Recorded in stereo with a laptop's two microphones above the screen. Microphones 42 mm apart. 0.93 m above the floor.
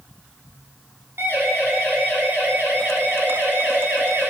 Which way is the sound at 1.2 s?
75° right (ahead or behind).